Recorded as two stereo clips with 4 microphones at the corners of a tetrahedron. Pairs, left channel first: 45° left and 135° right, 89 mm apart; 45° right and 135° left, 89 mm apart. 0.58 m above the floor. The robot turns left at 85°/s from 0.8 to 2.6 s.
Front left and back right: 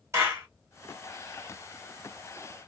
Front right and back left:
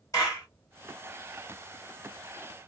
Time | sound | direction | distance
0.1 | a clap | 85° right | 2.5 m